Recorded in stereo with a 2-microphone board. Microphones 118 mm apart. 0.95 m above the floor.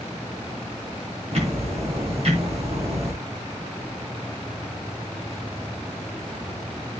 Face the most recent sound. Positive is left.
turn(degrees=-55)  # may be behind; listen again after turning